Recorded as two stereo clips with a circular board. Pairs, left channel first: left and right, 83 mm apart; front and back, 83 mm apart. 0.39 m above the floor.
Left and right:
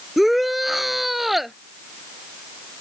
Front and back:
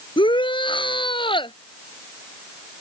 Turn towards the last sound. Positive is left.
turn(degrees=0)